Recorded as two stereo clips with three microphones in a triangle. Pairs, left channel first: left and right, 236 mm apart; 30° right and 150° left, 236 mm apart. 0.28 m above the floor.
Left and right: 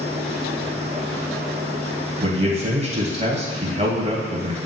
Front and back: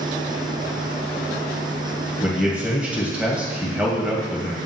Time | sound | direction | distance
2.2 | a man speaking | 130° right | 1.8 m